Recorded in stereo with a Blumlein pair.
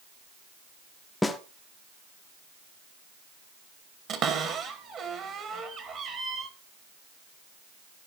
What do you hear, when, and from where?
1.2 s a snare drum: 10° left, 0.6 m
4.1 s a cupboard door: 30° right, 1.4 m